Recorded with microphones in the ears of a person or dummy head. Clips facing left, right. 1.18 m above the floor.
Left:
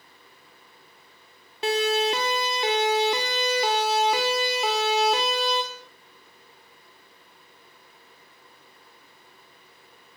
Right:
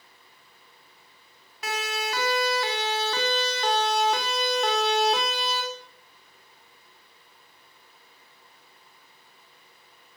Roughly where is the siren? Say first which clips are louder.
Left 9 dB; left.